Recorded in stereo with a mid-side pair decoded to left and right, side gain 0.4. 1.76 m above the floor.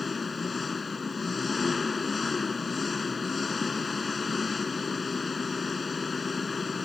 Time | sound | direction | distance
0.0 | an engine running | 35° left | ?